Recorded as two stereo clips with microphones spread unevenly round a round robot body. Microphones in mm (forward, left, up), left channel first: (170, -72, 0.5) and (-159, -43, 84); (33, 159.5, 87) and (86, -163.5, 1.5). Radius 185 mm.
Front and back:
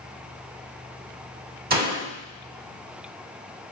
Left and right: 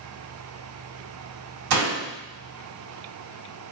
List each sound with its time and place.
1.7 s a door slam: 120° right, 4 m